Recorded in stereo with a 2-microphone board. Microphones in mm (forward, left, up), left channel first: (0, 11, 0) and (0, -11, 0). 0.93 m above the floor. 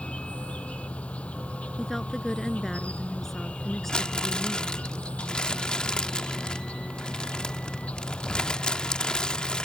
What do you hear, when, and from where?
0.0 s an insect: 75° left (ahead or behind)
1.8 s a woman speaking: 15° left (ahead or behind)
3.9 s crumpling: 40° left (ahead or behind)